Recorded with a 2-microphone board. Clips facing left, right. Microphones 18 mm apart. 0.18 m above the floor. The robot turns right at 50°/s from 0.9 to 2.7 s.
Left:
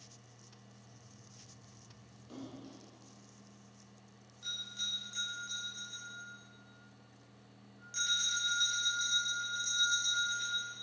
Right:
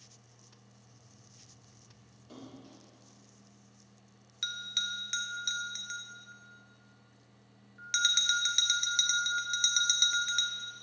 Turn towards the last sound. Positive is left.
turn(degrees=-70)  # may be behind; listen again after turning